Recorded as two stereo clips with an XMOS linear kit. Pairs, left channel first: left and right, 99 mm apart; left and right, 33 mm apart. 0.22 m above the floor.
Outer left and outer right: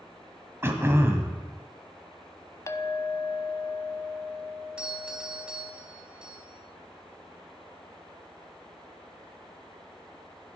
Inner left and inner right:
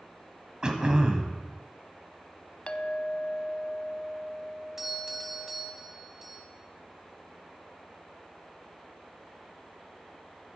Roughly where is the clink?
Left.